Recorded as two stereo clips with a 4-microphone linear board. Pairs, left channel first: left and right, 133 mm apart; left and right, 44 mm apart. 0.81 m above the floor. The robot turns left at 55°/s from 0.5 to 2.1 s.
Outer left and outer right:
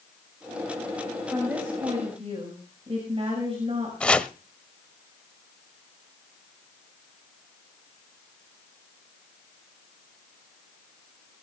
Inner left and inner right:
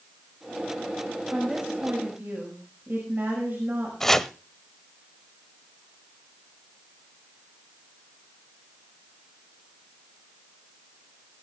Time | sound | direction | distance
1.3 | a woman speaking | straight ahead | 5 m
4.0 | chopping | 10° left (ahead or behind) | 0.6 m